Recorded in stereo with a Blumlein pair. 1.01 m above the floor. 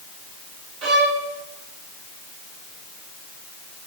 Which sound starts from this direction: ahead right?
A violin, at 0.8 s.